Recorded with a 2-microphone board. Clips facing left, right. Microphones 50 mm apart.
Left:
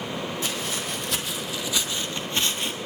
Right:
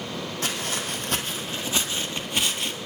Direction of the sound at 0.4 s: 55° right (ahead or behind).